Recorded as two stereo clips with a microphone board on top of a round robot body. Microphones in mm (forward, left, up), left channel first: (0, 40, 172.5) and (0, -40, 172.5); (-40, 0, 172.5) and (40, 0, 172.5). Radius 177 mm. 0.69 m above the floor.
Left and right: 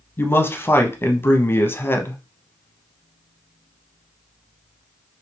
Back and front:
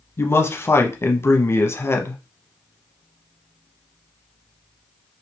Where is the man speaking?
140° left, 0.9 m.